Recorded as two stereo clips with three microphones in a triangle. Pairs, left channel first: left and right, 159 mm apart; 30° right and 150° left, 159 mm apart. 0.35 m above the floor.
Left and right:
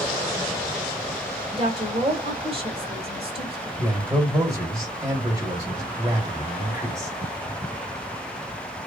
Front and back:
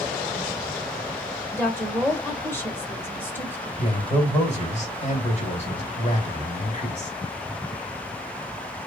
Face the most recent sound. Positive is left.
turn(degrees=-30)